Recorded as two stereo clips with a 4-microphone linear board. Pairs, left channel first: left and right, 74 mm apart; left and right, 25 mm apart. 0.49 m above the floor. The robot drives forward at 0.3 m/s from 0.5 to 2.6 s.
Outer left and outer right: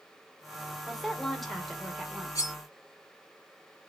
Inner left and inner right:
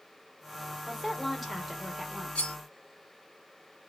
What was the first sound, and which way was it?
A woman speaking, centre (ahead or behind).